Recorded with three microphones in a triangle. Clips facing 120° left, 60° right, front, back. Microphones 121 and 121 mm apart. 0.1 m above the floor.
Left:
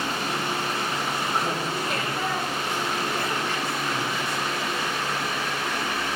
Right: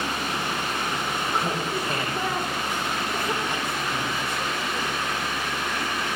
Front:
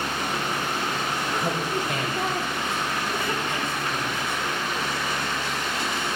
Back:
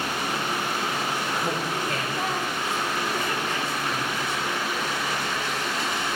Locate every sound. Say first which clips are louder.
1.3 s laughter: right 2 dB, front 1 dB; straight ahead, 5 m; by 4.9 s 35° right, 7 m